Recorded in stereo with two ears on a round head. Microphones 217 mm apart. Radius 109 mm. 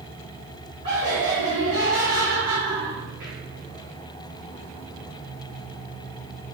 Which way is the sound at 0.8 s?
40° right (ahead or behind).